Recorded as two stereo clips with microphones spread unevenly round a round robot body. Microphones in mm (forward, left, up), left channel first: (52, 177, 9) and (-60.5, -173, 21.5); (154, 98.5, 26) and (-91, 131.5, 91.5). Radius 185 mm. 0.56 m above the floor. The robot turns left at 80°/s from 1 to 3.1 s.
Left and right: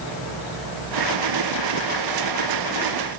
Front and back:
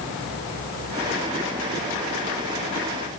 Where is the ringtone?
I don't hear a ringtone.